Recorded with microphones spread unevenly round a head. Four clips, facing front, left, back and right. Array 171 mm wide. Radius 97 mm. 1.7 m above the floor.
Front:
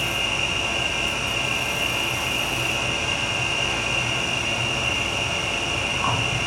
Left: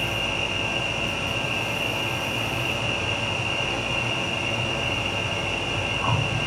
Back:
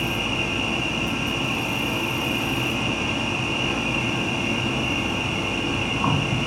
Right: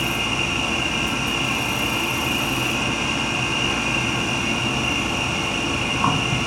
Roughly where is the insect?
Behind right.